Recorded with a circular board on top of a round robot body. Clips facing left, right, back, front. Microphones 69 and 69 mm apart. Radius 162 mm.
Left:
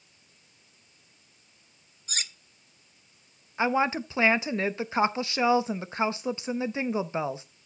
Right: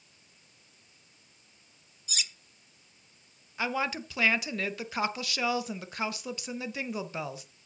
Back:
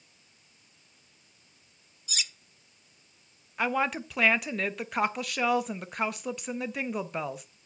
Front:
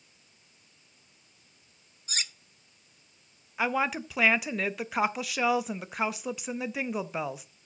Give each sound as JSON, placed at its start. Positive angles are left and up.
{"t": 2.1, "sound": "cutlery clinking", "azimuth_deg": 50, "distance_m": 0.7}
{"t": 3.6, "sound": "a woman speaking", "azimuth_deg": 85, "distance_m": 0.8}